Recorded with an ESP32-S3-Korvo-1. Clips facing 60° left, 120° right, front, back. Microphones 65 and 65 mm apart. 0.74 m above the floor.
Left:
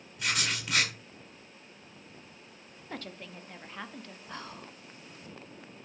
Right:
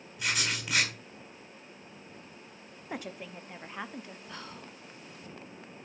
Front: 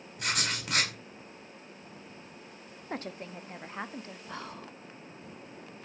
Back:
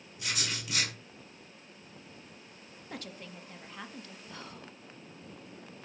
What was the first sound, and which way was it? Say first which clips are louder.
Writing: even, front 4 dB; 30° right.